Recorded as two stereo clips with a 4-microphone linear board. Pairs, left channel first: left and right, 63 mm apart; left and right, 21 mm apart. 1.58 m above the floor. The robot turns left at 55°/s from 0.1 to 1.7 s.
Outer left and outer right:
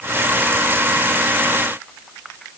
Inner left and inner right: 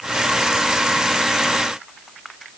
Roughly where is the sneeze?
No sneeze in this recording.